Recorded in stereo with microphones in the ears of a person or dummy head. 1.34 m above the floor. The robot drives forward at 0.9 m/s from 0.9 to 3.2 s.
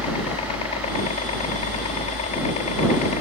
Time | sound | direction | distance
0.0 | a helicopter | 35° left (ahead or behind) | ?